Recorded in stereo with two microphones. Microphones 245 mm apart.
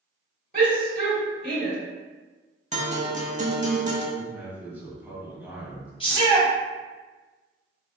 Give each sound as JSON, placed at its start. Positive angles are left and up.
{"t": 0.5, "sound": "a shout", "side_deg": -45, "distance_m": 1.3}
{"t": 2.7, "sound": "a guitar", "side_deg": -30, "distance_m": 0.6}
{"t": 4.2, "sound": "a man speaking", "side_deg": -5, "distance_m": 1.1}
{"t": 6.0, "sound": "a shout", "side_deg": 20, "distance_m": 1.0}